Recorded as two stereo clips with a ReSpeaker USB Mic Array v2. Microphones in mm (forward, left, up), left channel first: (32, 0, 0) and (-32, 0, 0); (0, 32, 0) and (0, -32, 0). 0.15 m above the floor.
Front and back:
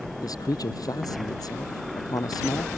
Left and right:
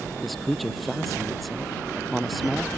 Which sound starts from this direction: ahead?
A man speaking, at 0.2 s.